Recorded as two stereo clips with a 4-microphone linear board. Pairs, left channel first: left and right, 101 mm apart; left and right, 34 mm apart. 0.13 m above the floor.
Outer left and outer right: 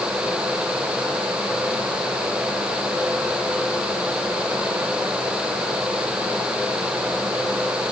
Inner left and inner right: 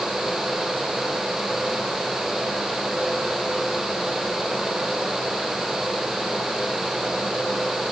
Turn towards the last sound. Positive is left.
No sound to turn to.